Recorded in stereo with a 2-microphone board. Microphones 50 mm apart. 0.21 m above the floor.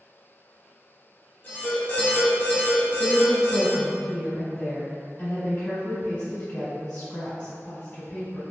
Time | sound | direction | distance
1.4 | an alarm | 40° left (ahead or behind) | 1.0 m
3.0 | a woman speaking | 20° left (ahead or behind) | 1.3 m